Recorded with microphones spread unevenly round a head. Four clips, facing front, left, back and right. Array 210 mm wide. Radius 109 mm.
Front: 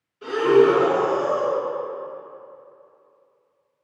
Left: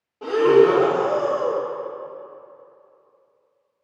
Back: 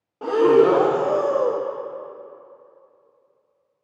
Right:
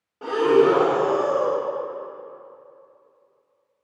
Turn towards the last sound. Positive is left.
turn(degrees=180)